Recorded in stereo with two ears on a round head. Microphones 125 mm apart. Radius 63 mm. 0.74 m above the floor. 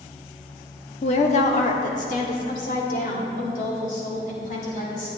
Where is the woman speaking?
45° left (ahead or behind), 1.1 m; by 5.1 s 65° left (ahead or behind), 4 m.